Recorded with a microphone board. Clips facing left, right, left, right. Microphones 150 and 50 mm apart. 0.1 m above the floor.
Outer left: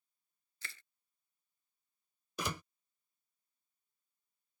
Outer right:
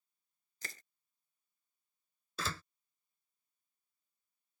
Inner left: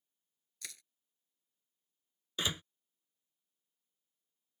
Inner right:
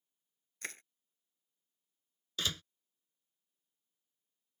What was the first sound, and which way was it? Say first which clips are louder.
Crushing: outer right 3 dB, inner right 7 dB; 40° right (ahead or behind).